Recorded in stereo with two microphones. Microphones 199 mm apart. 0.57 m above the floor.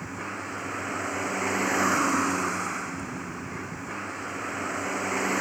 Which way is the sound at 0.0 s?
Centre (ahead or behind).